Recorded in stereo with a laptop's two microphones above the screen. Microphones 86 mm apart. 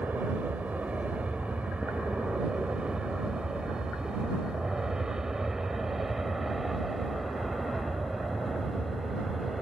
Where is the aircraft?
15° right (ahead or behind); by 9.6 s centre (ahead or behind).